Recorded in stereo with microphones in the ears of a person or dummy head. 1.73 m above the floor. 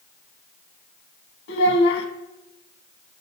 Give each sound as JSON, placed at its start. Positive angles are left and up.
{"t": 1.5, "sound": "a child speaking", "side_deg": 65, "distance_m": 1.7}